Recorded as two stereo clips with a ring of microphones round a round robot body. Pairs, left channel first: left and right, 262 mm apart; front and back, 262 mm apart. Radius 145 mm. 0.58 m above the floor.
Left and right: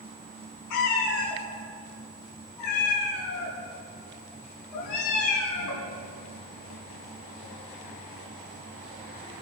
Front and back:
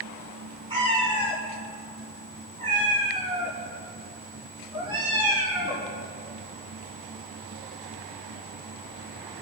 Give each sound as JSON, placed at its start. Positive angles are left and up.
{"t": 0.7, "sound": "a cat meowing", "azimuth_deg": 105, "distance_m": 4.0}